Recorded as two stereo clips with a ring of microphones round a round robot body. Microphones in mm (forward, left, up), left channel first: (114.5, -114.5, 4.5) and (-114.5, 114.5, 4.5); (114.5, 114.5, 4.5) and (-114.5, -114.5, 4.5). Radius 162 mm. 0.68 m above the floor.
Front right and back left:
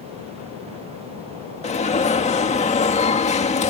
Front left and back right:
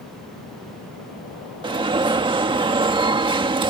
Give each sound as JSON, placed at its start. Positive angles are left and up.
{"t": 1.6, "sound": "an alarm", "azimuth_deg": -80}